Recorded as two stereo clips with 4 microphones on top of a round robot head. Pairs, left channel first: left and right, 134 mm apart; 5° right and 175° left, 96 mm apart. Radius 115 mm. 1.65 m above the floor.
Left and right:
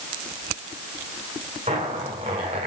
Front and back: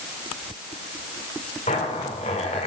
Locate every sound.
1.7 s a zipper: 35° right, 1.6 m